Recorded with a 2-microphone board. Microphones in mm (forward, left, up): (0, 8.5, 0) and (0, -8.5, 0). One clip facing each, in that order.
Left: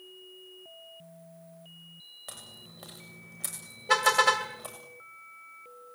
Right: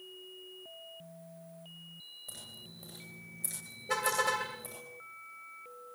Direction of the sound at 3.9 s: 45° left (ahead or behind).